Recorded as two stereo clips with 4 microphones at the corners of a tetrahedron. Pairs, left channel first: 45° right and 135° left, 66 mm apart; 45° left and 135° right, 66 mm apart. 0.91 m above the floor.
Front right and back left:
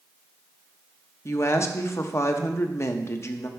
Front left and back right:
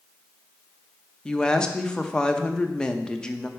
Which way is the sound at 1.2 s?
30° right.